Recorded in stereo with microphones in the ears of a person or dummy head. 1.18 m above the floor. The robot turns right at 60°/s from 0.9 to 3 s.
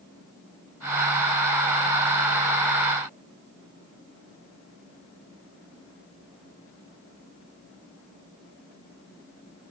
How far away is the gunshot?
No gunshot in this recording.